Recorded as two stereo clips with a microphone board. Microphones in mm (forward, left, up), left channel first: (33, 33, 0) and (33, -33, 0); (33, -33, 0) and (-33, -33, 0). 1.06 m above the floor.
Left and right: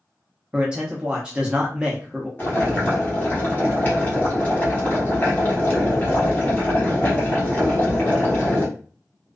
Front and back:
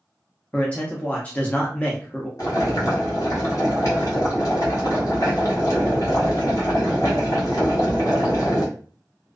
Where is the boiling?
30° left, 1.1 m.